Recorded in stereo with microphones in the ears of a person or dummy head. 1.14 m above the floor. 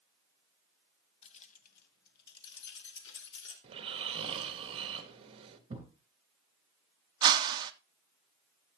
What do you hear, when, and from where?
1.2 s keys jangling: 40° left (ahead or behind), 1.1 m; by 3.5 s 75° left (ahead or behind), 2.5 m
3.6 s snoring: 30° right (ahead or behind), 1.3 m
5.7 s a thud: 25° right (ahead or behind), 3.5 m
7.2 s a whoosh: 20° right (ahead or behind), 0.6 m